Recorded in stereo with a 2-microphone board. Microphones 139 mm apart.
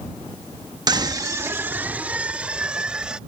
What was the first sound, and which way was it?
A scream, 30° right (ahead or behind).